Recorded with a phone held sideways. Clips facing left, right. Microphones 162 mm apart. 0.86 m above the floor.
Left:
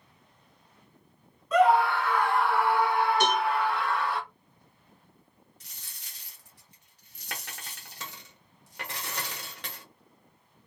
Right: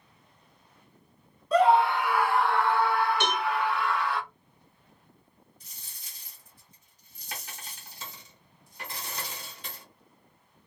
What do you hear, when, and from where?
1.5 s a scream: 35° right (ahead or behind), 0.8 m; by 4.2 s 40° left (ahead or behind), 1.4 m
3.2 s a cowbell: 40° left (ahead or behind), 1.5 m
5.6 s a dropped coin: 80° left, 0.9 m